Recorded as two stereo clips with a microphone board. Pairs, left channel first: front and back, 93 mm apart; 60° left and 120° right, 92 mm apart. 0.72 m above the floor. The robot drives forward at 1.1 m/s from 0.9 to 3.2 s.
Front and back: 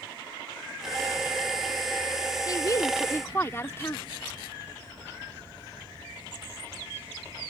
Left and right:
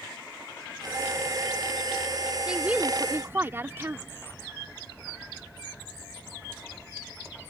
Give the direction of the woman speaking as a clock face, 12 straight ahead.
1 o'clock.